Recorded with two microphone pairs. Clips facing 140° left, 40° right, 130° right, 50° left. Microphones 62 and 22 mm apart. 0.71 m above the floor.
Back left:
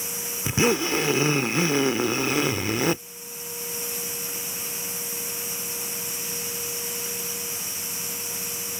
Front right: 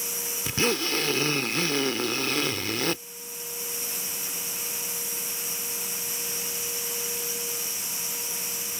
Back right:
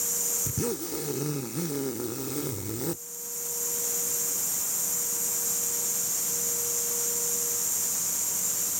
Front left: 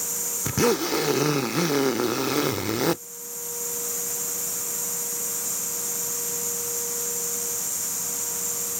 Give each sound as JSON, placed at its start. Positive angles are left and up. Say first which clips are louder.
{"t": 0.5, "sound": "a zipper", "louder": "back left 4 dB, front left 9 dB", "azimuth_deg": 70}